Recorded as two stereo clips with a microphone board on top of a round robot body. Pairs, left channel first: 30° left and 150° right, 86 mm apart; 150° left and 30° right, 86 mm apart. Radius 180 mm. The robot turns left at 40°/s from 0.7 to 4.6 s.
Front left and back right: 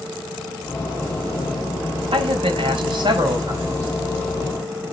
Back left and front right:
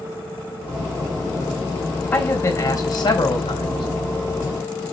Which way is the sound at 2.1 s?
140° right.